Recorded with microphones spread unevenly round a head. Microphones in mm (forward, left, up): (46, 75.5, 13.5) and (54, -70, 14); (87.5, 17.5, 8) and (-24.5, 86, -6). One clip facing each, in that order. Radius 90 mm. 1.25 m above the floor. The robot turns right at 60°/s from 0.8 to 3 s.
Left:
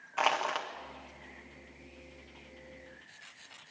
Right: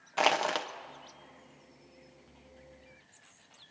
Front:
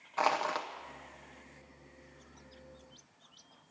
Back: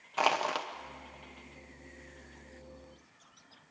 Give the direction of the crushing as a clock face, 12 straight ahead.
5 o'clock.